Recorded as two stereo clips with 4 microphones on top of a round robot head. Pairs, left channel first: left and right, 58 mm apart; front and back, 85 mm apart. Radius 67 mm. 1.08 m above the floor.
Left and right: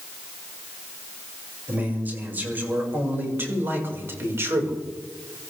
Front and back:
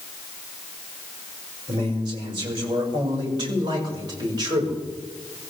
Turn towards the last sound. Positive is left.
turn(degrees=-135)